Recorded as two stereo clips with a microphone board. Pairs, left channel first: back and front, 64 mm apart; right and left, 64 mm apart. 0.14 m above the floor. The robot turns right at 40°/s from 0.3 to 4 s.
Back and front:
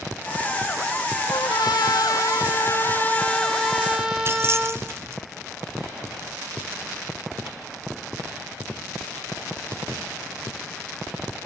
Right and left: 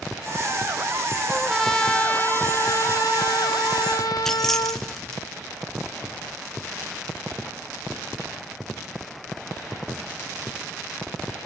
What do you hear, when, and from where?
1.3 s a trumpet: 170° left, 1.2 m; by 4.9 s 80° right, 1.2 m
4.2 s keys jangling: 10° right, 1.2 m